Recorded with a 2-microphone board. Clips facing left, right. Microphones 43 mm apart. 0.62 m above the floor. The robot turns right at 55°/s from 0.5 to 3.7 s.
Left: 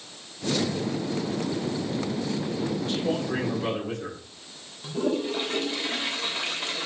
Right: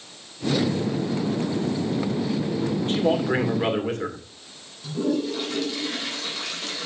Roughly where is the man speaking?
Behind right.